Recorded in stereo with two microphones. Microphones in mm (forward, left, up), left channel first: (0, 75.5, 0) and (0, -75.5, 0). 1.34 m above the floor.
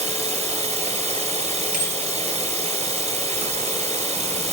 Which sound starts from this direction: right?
Running water, at 0.0 s.